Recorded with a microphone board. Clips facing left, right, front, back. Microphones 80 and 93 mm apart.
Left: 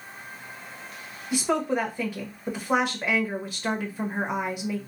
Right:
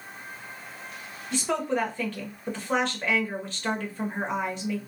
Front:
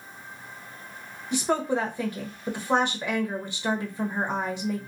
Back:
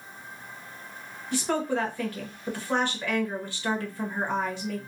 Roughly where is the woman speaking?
Ahead left.